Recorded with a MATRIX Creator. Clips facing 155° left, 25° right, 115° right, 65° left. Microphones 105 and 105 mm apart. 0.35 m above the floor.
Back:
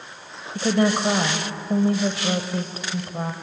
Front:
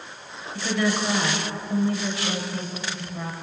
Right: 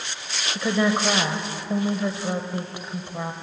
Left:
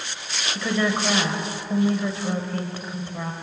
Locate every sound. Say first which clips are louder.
0.6 s a woman speaking: back 4 dB, right 2 dB; 175° right, 1.8 m